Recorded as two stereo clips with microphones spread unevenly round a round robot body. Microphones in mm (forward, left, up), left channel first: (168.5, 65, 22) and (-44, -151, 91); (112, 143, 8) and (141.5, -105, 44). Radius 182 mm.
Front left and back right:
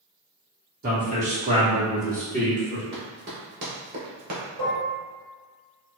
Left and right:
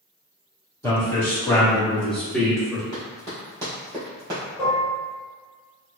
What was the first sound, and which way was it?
A man speaking, 165° left.